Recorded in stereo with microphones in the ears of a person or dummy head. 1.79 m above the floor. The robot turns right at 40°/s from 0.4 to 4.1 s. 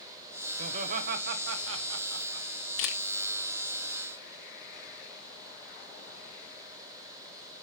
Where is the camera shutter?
75° left (ahead or behind), 1.3 m; by 3.0 s 70° left (ahead or behind), 1.3 m.